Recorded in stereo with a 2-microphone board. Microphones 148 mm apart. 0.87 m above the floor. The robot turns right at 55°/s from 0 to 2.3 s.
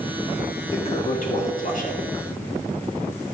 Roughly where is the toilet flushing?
Ahead left.